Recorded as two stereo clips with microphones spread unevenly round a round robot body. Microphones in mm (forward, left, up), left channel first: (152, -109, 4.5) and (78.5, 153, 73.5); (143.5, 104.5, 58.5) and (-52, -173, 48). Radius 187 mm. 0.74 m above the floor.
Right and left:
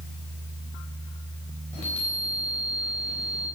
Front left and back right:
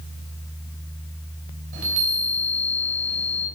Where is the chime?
145° right, 3 m.